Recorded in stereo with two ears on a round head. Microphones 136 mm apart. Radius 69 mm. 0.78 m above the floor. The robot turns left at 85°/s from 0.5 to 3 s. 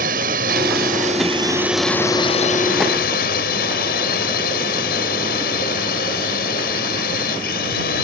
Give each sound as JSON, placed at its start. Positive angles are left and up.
{"t": 0.0, "sound": "a drone", "azimuth_deg": -70}